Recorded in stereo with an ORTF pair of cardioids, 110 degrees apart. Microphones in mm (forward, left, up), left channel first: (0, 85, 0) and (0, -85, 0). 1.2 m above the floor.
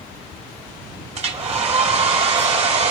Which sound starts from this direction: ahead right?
A hair dryer, at 1.1 s.